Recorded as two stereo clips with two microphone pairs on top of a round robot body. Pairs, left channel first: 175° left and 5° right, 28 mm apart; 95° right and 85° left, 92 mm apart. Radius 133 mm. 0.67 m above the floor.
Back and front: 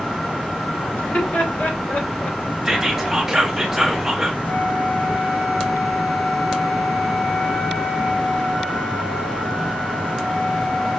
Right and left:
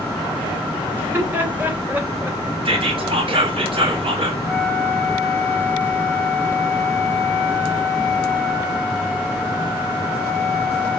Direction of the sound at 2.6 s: 85° left.